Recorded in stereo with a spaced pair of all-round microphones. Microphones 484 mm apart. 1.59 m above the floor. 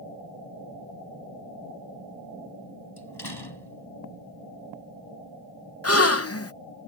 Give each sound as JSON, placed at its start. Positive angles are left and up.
{"t": 3.0, "sound": "a door slam", "side_deg": 55}
{"t": 5.8, "sound": "a gasp", "side_deg": 30}